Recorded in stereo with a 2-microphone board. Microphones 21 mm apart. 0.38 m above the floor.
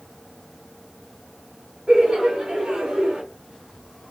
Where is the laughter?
45° right (ahead or behind), 1.8 m; by 3.2 s 40° right (ahead or behind), 1.7 m.